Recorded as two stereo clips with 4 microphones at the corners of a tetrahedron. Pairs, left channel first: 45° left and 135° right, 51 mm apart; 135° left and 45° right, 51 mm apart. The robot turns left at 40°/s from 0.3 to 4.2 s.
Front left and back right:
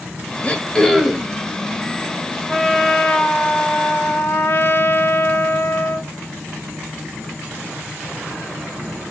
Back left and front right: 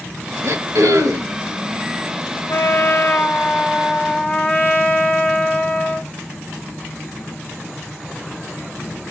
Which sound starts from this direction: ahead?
Throat clearing, at 0.4 s.